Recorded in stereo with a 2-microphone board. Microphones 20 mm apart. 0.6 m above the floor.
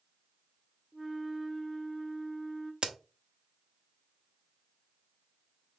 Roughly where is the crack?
Right.